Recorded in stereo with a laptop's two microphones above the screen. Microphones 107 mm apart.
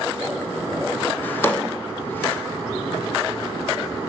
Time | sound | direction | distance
1.2 | a drawer | 15° left (ahead or behind) | 0.6 m